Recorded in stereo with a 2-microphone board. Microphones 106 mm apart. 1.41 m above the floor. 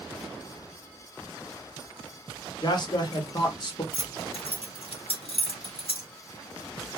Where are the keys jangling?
65° left (ahead or behind), 1.1 m.